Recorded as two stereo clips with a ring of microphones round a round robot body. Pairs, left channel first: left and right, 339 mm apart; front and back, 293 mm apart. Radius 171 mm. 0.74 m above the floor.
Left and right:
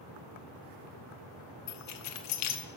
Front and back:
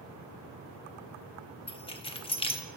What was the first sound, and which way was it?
Keys jangling, 70° left.